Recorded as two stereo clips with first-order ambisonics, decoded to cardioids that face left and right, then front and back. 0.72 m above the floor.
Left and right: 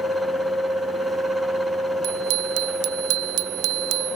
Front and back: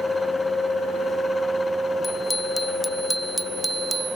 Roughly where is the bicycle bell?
Right.